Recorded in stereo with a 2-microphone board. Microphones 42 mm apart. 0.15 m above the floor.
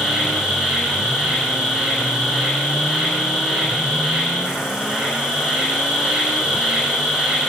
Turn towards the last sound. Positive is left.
turn(degrees=-20)  # may be behind; listen again after turning